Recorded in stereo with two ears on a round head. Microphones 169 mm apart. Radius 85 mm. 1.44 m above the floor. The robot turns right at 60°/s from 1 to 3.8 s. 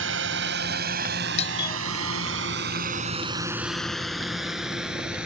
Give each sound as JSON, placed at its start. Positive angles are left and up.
{"t": 0.0, "sound": "a drone", "side_deg": -75}
{"t": 1.4, "sound": "a doorbell", "side_deg": 35}